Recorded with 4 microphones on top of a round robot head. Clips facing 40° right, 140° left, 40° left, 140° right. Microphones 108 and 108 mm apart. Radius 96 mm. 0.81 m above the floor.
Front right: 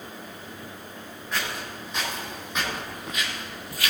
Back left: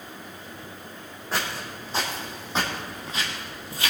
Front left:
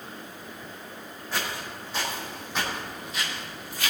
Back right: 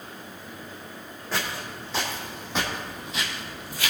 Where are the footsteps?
160° right, 3 m; by 3.9 s 155° right, 1.4 m.